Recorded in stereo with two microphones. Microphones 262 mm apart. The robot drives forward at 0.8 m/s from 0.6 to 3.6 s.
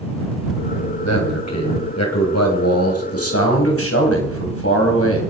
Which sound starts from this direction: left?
A man speaking, at 1.0 s.